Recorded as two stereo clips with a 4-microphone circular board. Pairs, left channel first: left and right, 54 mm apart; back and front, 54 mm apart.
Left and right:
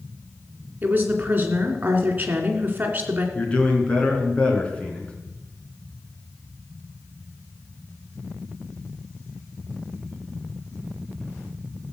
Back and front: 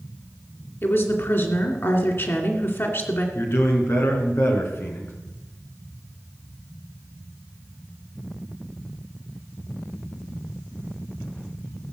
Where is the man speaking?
155° left, 3 m.